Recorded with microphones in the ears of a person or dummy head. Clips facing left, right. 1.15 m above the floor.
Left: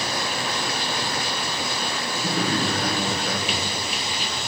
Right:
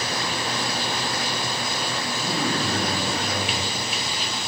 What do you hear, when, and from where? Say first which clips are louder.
2.2 s a man speaking: left 2 dB; 50° left (ahead or behind), 2 m